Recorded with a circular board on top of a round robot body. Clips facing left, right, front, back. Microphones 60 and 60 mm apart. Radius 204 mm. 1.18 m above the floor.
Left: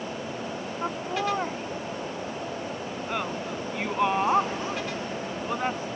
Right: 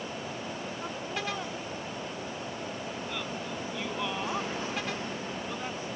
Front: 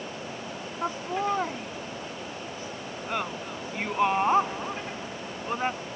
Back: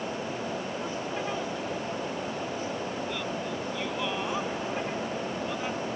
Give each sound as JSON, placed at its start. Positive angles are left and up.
{"t": 0.8, "sound": "laughter", "azimuth_deg": 40}